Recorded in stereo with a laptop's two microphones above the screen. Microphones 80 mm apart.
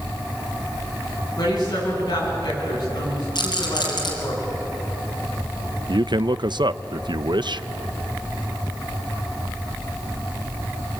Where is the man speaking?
65° right (ahead or behind), 0.6 m.